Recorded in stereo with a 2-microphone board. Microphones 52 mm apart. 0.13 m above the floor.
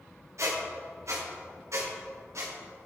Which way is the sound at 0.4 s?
65° right (ahead or behind).